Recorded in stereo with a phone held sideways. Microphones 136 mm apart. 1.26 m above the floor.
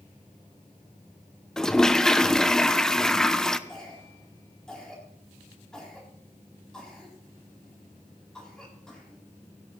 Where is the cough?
5° left (ahead or behind), 8 m.